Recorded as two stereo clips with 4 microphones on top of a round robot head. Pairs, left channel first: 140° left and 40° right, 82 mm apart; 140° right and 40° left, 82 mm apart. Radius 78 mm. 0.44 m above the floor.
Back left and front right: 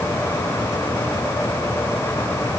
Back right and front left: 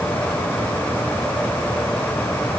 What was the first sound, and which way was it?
Only background noise.